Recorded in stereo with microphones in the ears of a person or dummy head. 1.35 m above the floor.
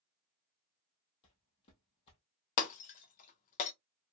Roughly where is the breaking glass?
Left.